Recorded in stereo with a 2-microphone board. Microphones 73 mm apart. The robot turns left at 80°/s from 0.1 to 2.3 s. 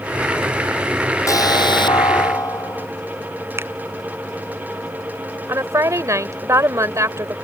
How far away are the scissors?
No scissors in this recording.